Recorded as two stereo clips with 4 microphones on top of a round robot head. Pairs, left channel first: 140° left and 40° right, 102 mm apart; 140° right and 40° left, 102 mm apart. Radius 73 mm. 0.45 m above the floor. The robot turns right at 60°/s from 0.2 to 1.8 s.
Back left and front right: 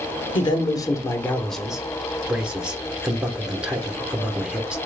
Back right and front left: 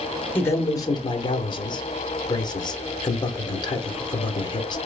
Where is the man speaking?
155° left, 1.0 m; by 4.8 s 120° right, 1.0 m.